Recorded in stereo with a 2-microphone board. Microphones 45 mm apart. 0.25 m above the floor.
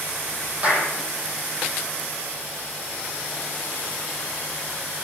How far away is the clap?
About 7 m.